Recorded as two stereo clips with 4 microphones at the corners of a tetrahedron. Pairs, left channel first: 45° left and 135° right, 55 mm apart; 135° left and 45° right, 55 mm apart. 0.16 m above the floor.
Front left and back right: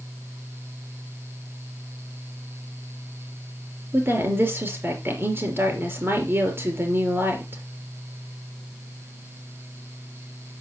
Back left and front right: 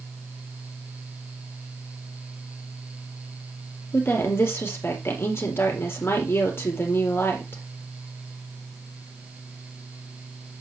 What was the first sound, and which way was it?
A woman speaking, straight behind.